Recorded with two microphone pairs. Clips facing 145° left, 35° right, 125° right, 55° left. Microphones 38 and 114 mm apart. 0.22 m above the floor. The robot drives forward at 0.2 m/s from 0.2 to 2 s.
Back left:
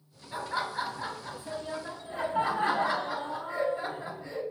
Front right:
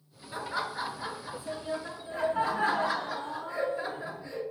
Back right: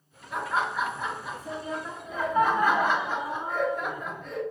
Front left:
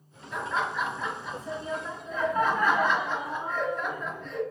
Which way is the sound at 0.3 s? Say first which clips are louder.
Back left 1 dB, back right 2 dB; 160° left.